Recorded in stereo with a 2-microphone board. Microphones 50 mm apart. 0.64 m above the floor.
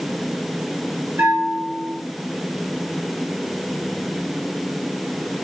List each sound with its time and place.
1.2 s a bell: 60° right (ahead or behind), 4.5 m